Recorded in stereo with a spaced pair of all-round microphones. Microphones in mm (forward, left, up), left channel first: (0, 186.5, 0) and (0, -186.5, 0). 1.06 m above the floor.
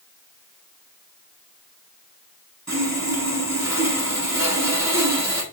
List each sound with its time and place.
2.7 s sawing: 45° right (ahead or behind), 1.4 m